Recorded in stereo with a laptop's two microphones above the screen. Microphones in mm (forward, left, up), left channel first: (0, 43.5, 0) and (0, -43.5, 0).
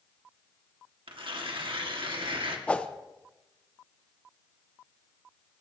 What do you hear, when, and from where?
1.1 s tearing paper: 75° right (ahead or behind), 1.6 m
2.7 s a whoosh: 15° left (ahead or behind), 0.7 m